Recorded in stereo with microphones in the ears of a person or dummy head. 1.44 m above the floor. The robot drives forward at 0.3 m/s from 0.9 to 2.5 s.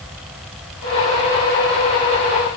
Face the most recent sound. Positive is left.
No sound to turn to.